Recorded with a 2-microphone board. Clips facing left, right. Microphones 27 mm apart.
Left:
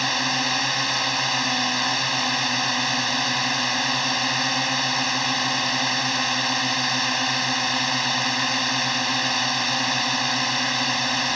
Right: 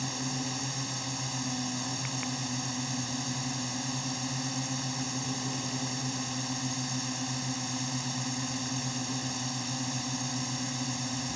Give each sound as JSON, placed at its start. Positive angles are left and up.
{"t": 0.0, "sound": "a drone", "side_deg": 70}